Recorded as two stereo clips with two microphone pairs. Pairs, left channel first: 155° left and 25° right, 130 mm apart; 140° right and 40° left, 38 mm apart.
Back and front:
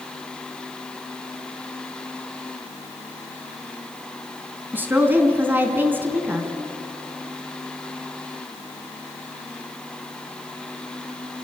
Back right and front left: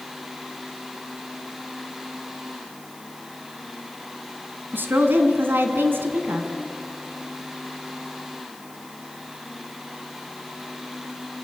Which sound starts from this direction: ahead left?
A woman speaking, at 4.7 s.